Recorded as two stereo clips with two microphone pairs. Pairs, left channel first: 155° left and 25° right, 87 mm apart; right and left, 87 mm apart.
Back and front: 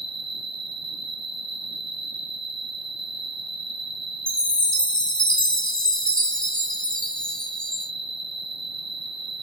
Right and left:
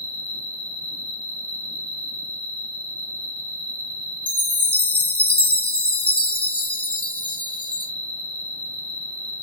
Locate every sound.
0.0 s an insect: 125° left, 1.3 m
4.3 s a chime: 135° right, 0.8 m